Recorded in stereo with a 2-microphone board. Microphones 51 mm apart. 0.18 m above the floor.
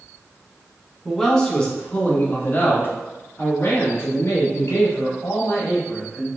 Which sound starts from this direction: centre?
A man speaking, at 1.1 s.